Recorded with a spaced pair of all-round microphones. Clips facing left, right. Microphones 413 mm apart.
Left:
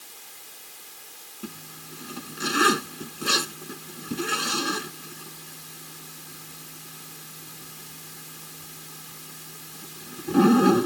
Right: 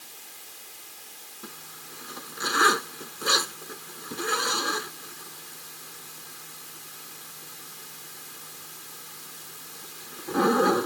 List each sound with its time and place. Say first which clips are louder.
1.4 s a zipper: left 7 dB; 50° left (ahead or behind)